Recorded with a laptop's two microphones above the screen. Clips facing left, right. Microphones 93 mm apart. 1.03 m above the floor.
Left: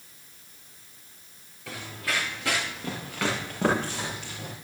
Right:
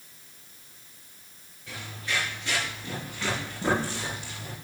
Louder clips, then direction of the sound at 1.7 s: Left 2 dB; 75° left (ahead or behind).